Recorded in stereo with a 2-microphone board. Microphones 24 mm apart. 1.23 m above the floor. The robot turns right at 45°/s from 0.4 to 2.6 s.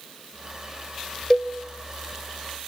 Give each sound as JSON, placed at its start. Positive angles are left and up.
{"t": 1.3, "sound": "a cowbell", "side_deg": 25, "distance_m": 1.0}